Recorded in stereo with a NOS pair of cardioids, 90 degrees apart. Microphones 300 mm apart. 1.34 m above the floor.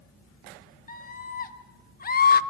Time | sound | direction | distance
0.9 | a scream | 30° left | 3 m